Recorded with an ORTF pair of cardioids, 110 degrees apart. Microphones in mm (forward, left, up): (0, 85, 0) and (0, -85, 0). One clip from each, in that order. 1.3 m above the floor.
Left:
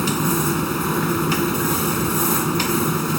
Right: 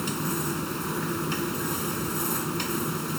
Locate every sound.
0.0 s a machine running: 50° left